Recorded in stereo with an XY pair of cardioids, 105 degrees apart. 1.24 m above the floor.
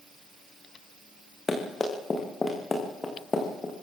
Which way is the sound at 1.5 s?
25° left.